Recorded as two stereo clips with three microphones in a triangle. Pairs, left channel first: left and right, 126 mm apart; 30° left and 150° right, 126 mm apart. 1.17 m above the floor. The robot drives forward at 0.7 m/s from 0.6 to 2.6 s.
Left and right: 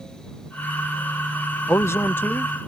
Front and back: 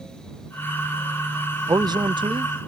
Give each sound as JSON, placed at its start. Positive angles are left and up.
{"t": 1.7, "sound": "a man speaking", "azimuth_deg": 155}